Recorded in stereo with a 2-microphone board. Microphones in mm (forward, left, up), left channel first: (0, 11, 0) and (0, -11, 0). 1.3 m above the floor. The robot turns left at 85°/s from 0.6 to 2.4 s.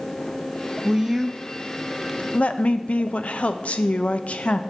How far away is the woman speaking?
About 0.7 m.